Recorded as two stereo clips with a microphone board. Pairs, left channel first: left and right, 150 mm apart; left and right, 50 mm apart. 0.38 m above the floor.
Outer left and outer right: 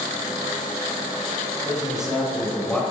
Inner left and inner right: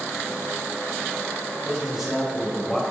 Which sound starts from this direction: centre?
A man speaking, at 1.6 s.